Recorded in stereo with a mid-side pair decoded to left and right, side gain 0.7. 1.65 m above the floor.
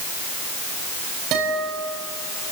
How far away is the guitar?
About 6.5 m.